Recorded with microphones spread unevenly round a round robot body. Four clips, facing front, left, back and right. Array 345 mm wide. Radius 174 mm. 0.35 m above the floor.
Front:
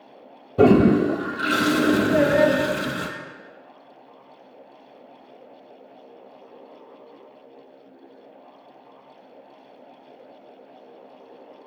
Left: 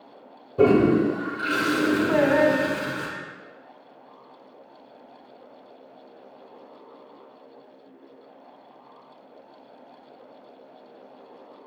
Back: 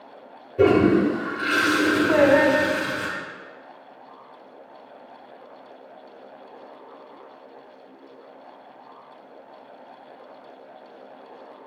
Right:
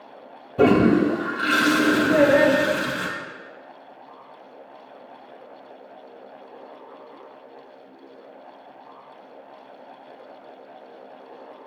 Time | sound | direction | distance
0.6 | a toilet flushing | 25° right | 0.8 m
2.1 | singing | 140° left | 1.7 m